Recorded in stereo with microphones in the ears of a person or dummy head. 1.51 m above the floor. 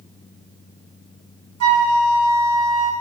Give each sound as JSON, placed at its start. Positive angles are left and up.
{"t": 1.6, "sound": "a flute", "side_deg": -85, "distance_m": 0.6}